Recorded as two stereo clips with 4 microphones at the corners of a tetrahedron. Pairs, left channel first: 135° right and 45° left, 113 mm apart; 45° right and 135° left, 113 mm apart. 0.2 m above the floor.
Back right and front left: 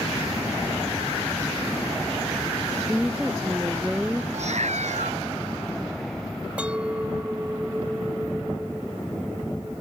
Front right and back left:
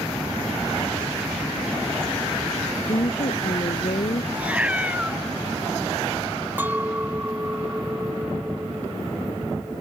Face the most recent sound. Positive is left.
turn(degrees=105)